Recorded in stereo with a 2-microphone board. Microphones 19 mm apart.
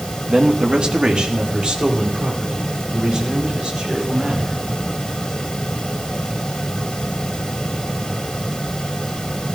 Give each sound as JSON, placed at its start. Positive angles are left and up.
{"t": 0.3, "sound": "a man speaking", "side_deg": -55, "distance_m": 2.5}